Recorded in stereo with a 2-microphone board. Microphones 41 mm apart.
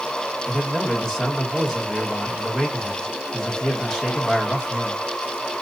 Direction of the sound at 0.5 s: 10° left (ahead or behind).